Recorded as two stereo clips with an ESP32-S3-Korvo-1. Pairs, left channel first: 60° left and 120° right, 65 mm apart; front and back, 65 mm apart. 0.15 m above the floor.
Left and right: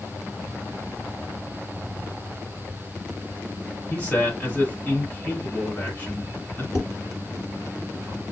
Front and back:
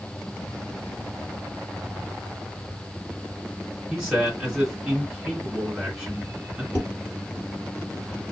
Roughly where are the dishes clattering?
Ahead left.